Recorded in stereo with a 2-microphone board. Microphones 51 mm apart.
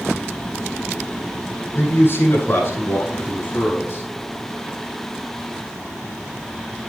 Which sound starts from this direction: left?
A man speaking, at 1.8 s.